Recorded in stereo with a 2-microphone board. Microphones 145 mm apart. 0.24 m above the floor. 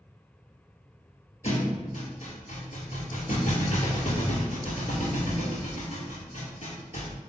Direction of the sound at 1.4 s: 50° left (ahead or behind).